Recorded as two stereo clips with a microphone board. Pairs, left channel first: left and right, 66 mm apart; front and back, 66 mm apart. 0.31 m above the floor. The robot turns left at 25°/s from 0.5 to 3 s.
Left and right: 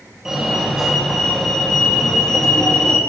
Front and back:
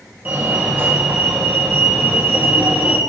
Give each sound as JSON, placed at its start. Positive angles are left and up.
{"t": 0.2, "sound": "a fire alarm", "azimuth_deg": -160, "distance_m": 2.0}